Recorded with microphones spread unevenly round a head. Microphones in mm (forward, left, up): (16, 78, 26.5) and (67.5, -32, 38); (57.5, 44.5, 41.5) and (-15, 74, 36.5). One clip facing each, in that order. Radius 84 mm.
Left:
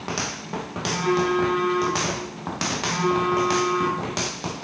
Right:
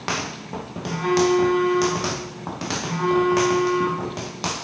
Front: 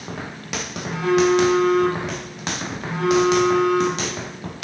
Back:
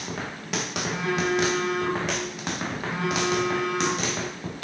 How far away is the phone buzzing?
About 2 m.